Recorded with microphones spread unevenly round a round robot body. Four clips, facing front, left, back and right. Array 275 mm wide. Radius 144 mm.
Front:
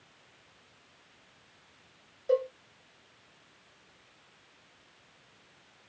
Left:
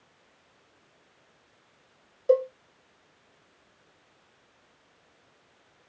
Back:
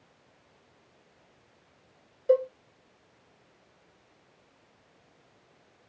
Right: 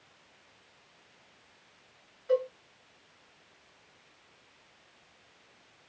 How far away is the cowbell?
About 1.6 m.